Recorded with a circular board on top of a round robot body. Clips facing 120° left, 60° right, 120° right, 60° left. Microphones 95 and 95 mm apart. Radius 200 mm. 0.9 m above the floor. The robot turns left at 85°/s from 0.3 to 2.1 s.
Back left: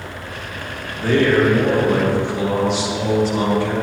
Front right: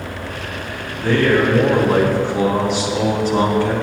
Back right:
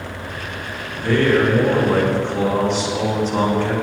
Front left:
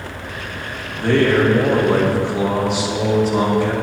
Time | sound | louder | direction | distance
0.9 | a man speaking | even, front left 1 dB | 80° left | 3 m